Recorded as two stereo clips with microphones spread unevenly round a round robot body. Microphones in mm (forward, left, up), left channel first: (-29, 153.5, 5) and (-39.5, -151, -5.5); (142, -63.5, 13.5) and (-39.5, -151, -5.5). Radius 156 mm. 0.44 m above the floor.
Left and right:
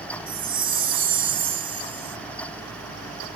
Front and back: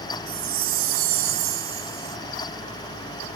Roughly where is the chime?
Behind.